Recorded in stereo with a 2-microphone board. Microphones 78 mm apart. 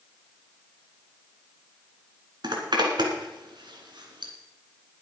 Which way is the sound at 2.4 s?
75° right (ahead or behind).